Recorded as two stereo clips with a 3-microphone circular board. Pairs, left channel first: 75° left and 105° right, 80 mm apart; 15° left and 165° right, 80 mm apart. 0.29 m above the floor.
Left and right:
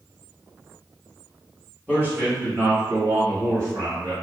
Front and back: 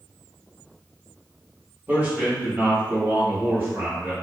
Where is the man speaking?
135° right, 1.6 m; by 4.1 s 110° right, 2.5 m.